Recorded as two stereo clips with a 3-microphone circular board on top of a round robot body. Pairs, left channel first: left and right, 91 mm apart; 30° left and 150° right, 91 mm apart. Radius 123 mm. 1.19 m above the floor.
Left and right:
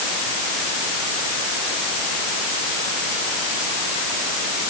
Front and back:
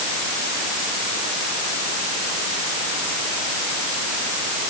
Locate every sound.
Only background noise.